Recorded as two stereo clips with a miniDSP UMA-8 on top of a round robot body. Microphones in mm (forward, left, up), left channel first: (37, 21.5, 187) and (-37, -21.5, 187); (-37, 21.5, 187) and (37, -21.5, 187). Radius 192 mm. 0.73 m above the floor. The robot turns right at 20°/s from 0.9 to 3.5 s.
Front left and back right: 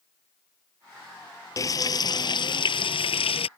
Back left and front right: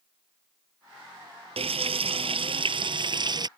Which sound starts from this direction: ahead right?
Frying, at 1.6 s.